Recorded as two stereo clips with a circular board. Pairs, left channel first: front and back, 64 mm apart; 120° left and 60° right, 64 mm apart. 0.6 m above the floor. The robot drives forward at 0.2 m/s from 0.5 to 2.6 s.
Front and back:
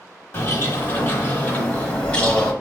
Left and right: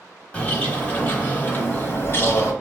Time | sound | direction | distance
0.3 | a bird | 50° left | 0.9 m